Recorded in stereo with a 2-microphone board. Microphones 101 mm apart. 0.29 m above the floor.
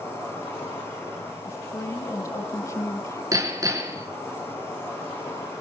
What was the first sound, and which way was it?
An insect, 25° left (ahead or behind).